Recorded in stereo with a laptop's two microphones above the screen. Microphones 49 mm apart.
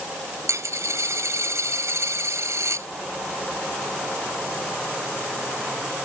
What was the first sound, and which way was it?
A dropped coin, 85° right.